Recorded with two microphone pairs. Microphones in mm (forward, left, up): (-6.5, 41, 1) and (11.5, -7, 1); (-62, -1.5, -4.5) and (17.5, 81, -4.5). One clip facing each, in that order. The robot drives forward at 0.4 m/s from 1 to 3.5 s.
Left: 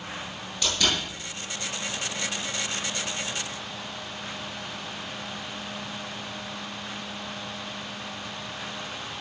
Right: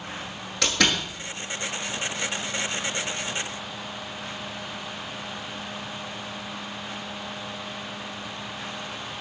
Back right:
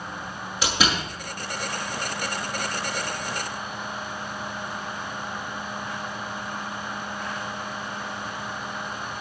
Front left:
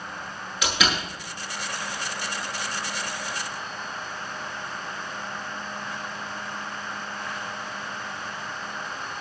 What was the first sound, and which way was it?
A door slam, 75° right.